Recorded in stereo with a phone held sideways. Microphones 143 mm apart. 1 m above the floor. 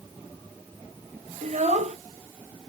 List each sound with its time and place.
1.4 s a child speaking: 55° right (ahead or behind), 0.5 m